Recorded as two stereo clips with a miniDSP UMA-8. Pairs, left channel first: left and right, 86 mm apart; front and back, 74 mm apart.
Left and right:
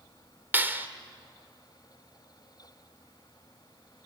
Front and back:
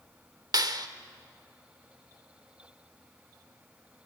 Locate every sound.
0.5 s a clap: 155° right, 1.3 m